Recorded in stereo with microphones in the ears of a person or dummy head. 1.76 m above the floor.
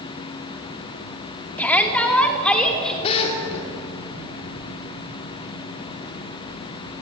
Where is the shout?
10° left (ahead or behind), 3.5 m; by 2.9 s 5° left (ahead or behind), 5 m.